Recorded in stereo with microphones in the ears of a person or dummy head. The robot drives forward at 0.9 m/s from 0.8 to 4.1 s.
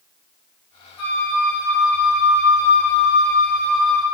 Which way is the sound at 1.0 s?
70° left (ahead or behind).